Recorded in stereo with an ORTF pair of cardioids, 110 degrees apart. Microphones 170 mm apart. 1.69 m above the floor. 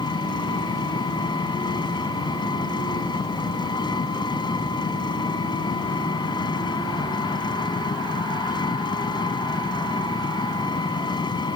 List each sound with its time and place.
0.0 s an engine running: 25° left